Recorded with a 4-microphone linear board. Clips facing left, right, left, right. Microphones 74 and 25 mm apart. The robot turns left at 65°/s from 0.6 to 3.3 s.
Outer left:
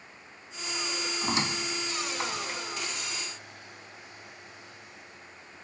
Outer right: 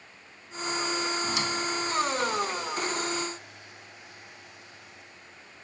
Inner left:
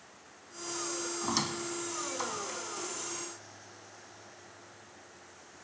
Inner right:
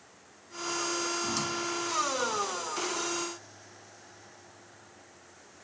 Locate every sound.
1.2 s a squeak: 30° left (ahead or behind), 0.6 m; by 2.6 s 5° left (ahead or behind), 0.6 m